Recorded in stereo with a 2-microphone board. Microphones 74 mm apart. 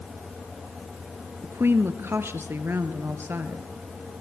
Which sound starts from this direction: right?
A woman speaking, at 1.4 s.